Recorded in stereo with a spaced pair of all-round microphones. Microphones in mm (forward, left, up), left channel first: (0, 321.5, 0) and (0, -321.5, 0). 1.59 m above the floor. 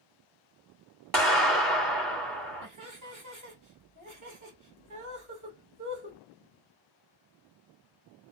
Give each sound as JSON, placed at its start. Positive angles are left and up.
{"t": 1.1, "sound": "a clap", "side_deg": -30, "distance_m": 1.4}
{"t": 2.6, "sound": "laughter", "side_deg": -30, "distance_m": 1.4}